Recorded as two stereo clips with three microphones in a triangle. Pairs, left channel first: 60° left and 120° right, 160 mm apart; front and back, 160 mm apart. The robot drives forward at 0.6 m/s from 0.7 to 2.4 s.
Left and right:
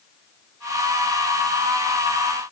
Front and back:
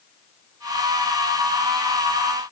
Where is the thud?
I don't hear a thud.